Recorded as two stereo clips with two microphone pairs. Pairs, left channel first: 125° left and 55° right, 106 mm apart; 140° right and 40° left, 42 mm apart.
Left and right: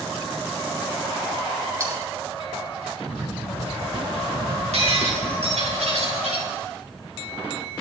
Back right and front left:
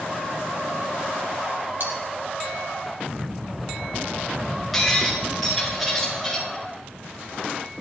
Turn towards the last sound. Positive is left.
turn(degrees=-55)